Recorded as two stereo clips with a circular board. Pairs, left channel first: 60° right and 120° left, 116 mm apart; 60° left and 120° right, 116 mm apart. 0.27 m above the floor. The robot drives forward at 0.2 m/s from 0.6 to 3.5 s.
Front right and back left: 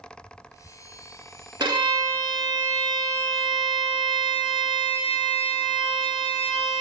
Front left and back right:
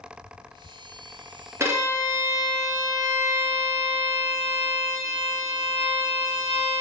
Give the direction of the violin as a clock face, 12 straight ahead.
6 o'clock.